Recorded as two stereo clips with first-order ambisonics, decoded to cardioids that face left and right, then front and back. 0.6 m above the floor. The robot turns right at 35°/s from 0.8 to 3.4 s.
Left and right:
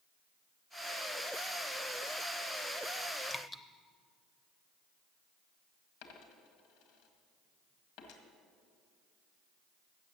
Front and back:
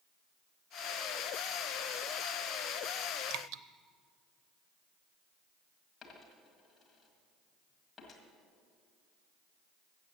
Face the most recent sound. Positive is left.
turn(degrees=75)